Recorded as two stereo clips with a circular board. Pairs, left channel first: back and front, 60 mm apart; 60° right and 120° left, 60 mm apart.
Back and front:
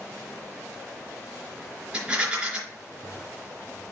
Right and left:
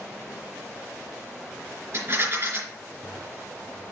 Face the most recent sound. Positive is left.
turn(degrees=75)